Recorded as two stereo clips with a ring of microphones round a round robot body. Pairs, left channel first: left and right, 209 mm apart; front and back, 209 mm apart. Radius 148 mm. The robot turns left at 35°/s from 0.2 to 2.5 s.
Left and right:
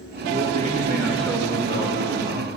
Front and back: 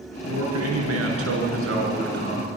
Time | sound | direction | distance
0.3 | a man speaking | 145° right | 7 m